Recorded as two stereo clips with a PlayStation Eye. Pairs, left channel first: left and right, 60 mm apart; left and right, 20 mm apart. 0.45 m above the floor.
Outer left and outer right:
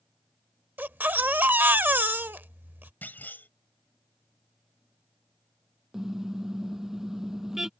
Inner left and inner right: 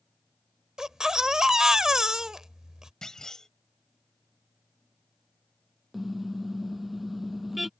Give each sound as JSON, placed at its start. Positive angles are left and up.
{"t": 0.8, "sound": "a baby crying", "side_deg": -30}
{"t": 3.0, "sound": "a clunk", "side_deg": 30}
{"t": 5.9, "sound": "a car horn", "side_deg": -5}